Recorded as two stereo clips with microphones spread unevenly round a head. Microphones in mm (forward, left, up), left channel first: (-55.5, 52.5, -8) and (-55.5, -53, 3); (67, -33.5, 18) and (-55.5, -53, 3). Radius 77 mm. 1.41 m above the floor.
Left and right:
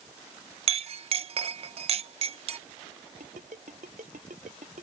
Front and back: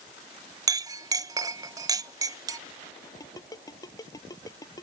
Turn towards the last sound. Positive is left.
turn(degrees=-50)